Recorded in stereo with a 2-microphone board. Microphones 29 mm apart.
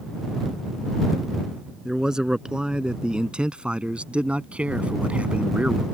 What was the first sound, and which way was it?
A man speaking, 30° right (ahead or behind).